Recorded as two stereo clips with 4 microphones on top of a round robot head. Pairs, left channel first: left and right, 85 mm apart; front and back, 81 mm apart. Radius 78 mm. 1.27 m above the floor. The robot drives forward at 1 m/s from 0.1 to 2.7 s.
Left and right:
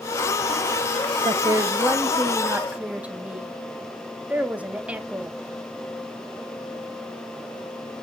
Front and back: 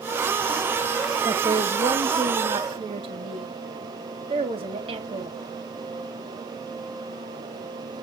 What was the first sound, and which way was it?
A woman speaking, 130° right.